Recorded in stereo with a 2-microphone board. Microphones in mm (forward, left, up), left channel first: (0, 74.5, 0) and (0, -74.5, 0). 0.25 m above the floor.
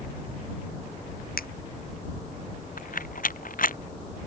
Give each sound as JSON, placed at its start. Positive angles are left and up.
{"t": 1.4, "sound": "a finger snap", "side_deg": 85}
{"t": 2.8, "sound": "a rattle", "side_deg": 70}